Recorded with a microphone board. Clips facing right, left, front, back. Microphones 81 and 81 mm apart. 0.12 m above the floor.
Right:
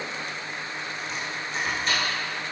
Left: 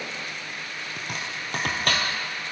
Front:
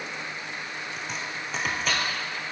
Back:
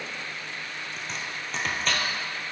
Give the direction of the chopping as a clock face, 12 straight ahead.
9 o'clock.